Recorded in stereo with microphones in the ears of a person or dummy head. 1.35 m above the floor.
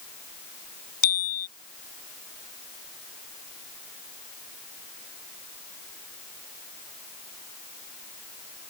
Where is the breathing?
No breathing in this recording.